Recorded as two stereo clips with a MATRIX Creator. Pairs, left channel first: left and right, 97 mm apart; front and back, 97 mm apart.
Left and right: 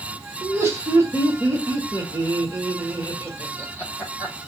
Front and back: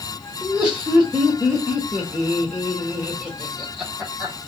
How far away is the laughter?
About 1.5 m.